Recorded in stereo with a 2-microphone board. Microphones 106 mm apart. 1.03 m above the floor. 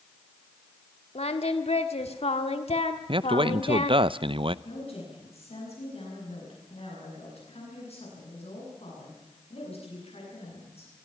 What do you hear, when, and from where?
1.1 s singing: 75° left (ahead or behind), 1.6 m
3.1 s a man speaking: 55° right (ahead or behind), 0.6 m
4.7 s a woman speaking: 75° left (ahead or behind), 9.5 m